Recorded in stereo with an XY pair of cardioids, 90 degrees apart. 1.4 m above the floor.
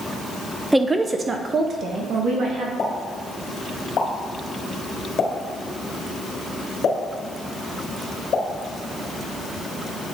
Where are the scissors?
No scissors in this recording.